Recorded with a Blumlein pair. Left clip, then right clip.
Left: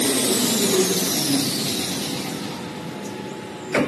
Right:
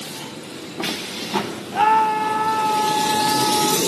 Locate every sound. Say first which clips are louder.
1.7 s a scream: right 11 dB; 45° right; by 3.8 s 40° right